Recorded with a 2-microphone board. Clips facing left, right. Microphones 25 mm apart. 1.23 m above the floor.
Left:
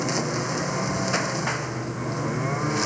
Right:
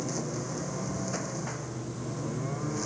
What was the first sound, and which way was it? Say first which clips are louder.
A lawn mower: left 8 dB; 85° left.